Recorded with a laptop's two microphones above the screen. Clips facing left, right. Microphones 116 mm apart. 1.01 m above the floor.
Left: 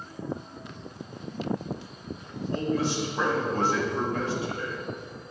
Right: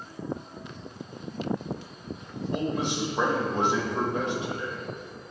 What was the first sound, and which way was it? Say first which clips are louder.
A man speaking: left 2 dB; 20° right (ahead or behind).